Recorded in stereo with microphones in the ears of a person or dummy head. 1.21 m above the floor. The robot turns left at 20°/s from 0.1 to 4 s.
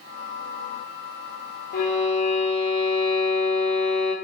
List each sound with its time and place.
1.7 s a violin: 50° left, 0.6 m; by 4.2 s 5° left, 0.6 m